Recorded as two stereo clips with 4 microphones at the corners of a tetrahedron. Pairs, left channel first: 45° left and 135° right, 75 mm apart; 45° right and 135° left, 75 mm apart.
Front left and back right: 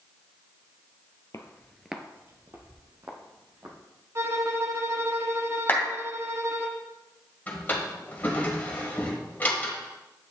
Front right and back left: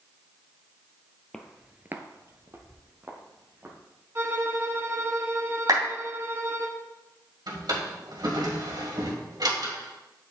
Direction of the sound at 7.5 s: 110° left.